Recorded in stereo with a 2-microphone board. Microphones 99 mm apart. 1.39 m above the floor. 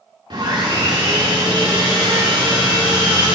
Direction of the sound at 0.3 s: 50° right (ahead or behind).